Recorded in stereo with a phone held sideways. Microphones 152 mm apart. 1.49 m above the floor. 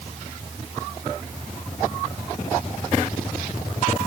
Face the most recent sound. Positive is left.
No sound to turn to.